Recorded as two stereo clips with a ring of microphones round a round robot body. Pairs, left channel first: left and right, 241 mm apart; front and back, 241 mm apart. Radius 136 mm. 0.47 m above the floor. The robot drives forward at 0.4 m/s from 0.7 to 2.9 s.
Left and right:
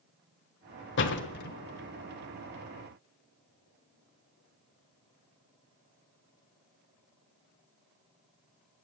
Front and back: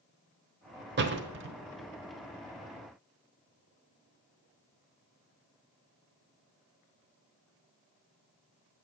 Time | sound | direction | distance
1.0 | a door slam | 135° left | 1.2 m